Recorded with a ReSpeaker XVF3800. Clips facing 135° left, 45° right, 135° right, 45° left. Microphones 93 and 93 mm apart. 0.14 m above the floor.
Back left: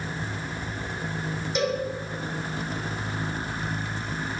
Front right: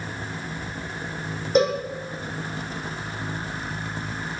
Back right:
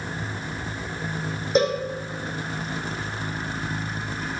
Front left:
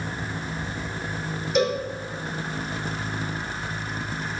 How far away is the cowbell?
About 5.5 m.